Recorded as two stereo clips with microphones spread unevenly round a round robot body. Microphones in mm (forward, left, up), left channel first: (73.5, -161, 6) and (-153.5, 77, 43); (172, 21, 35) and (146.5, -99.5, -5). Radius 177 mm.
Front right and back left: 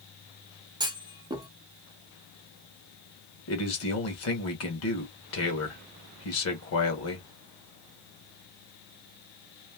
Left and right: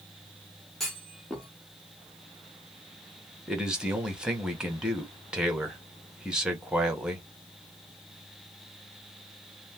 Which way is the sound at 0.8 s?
150° right.